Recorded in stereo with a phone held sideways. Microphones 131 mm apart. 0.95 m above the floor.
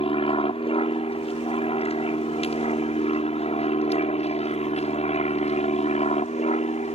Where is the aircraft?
45° left (ahead or behind); by 7.0 s 60° left (ahead or behind).